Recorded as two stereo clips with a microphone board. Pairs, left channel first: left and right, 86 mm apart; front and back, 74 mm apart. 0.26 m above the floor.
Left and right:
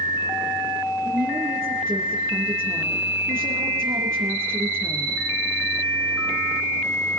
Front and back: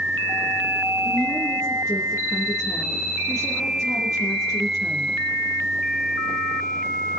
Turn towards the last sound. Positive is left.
turn(degrees=-55)